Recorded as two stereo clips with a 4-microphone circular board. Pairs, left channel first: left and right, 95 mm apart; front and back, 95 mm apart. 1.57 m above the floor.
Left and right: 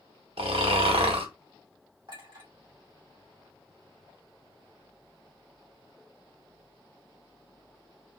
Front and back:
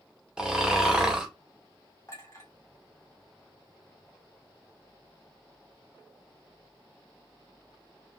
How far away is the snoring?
About 0.8 m.